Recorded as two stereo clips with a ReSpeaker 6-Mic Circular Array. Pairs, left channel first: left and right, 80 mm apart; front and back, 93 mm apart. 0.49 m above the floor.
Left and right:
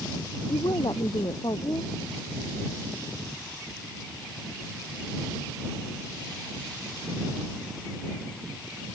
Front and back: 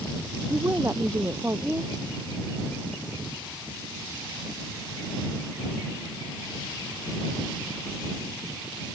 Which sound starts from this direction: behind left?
A woman speaking, at 0.5 s.